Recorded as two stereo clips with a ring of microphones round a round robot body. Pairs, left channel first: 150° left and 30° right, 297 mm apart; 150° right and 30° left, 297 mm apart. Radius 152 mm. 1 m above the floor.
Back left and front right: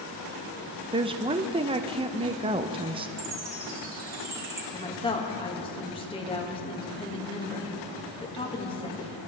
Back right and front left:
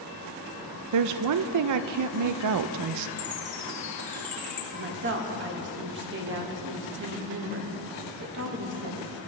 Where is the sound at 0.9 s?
40° left, 0.6 m.